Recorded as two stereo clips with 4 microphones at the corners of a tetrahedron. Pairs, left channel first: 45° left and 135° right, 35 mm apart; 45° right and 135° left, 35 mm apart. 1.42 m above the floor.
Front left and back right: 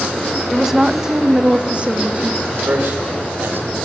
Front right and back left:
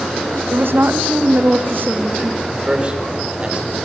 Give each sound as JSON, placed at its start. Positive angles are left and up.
{"t": 0.5, "sound": "a woman speaking", "azimuth_deg": 140, "distance_m": 1.8}
{"t": 2.5, "sound": "a man speaking", "azimuth_deg": -160, "distance_m": 6.0}